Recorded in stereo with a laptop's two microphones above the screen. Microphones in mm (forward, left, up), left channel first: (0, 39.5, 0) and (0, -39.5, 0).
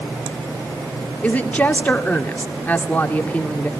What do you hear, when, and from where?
1.2 s a woman speaking: 20° left (ahead or behind), 2 m